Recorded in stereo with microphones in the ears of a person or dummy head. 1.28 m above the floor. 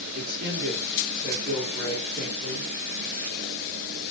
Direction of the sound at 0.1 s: 55° right (ahead or behind).